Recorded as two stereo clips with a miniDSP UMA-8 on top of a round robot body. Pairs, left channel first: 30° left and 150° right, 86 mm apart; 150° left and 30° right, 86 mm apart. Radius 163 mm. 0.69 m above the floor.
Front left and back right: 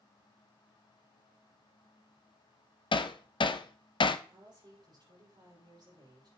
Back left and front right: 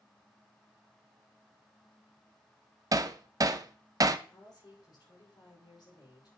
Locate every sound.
2.9 s hammering: 15° left, 0.6 m
4.3 s a woman speaking: straight behind, 5.5 m